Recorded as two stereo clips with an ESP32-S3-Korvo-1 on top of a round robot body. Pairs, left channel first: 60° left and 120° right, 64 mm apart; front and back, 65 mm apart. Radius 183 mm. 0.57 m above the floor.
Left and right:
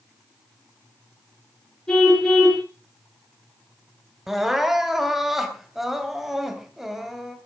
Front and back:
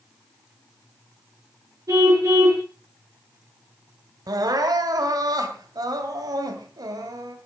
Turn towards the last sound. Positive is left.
turn(degrees=155)